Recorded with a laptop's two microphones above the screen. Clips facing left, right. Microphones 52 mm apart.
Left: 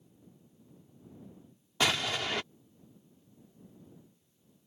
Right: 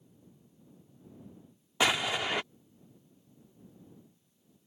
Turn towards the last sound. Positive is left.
turn(degrees=-15)  # may be behind; listen again after turning